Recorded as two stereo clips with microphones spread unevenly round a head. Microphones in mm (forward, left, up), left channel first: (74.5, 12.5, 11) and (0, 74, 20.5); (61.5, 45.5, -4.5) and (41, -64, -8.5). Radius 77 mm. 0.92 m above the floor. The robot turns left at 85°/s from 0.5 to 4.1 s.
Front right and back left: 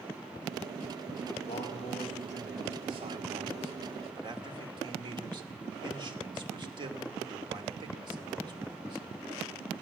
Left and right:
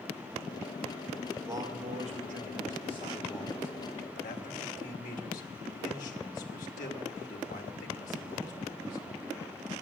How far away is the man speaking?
About 2.5 m.